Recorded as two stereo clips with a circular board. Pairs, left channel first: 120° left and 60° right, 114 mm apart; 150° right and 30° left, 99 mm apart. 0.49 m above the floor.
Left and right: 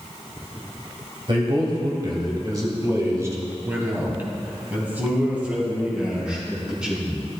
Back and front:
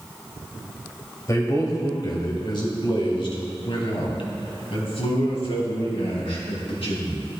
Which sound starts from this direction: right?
A man speaking, at 1.3 s.